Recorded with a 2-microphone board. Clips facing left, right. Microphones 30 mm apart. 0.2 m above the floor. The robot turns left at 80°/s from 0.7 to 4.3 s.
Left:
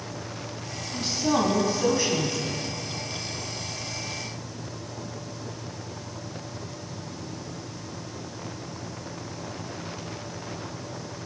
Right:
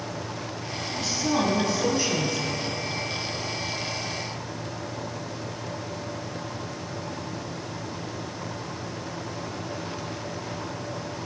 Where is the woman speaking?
95° left, 1.2 m; by 2.6 s 40° right, 1.2 m.